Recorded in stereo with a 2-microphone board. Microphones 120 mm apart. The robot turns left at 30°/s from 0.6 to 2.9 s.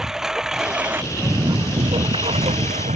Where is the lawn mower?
5° right (ahead or behind); by 3.0 s 75° right (ahead or behind).